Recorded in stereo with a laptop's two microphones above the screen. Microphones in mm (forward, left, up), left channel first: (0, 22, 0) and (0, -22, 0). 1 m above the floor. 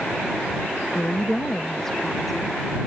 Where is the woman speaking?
35° left (ahead or behind); by 2.6 s centre (ahead or behind).